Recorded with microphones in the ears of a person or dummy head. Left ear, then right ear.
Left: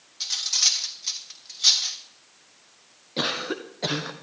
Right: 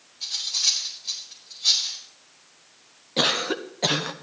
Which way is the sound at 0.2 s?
60° left (ahead or behind).